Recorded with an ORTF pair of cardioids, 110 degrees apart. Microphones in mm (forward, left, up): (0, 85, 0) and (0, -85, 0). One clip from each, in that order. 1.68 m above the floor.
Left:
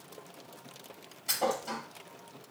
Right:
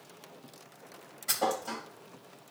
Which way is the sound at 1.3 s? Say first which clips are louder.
Even; 15° right.